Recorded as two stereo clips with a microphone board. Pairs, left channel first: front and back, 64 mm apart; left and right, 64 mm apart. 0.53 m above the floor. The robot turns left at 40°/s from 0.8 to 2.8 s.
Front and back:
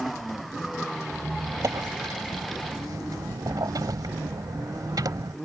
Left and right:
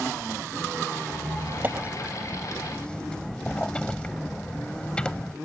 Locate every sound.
1.1 s a squeak: 130° right; by 5.3 s 165° left